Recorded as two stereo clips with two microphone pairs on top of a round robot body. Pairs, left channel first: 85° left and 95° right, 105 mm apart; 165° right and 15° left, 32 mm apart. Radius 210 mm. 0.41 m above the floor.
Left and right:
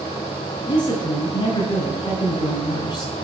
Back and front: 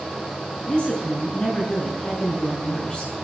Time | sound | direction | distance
0.7 | a woman speaking | 135° left | 7 m